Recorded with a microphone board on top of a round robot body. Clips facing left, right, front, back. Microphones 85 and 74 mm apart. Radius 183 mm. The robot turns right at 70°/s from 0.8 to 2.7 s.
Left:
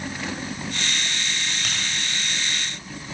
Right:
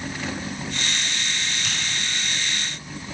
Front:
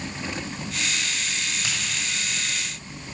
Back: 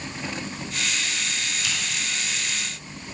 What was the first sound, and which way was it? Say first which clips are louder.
A finger snap: even, back 1 dB; 50° left.